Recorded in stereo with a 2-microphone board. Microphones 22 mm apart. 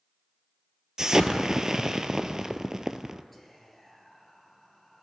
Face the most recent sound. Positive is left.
turn(degrees=10)  # may be behind; listen again after turning